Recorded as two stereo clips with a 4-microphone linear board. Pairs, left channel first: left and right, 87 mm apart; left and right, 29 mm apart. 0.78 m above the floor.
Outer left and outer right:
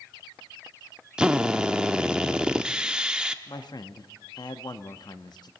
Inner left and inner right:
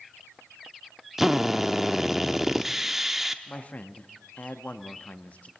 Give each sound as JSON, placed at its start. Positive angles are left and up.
{"t": 1.2, "sound": "a drill", "side_deg": -10, "distance_m": 0.6}
{"t": 3.5, "sound": "a man speaking", "side_deg": 55, "distance_m": 0.8}